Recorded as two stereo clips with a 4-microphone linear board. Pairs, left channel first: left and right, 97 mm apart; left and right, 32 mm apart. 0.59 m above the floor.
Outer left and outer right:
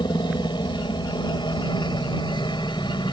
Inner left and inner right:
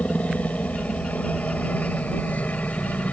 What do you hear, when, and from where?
0.0 s a helicopter: 50° left (ahead or behind)